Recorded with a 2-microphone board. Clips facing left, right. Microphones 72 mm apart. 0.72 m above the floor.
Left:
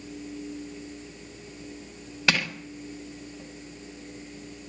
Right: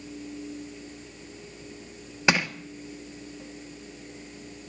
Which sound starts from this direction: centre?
Crushing, at 2.3 s.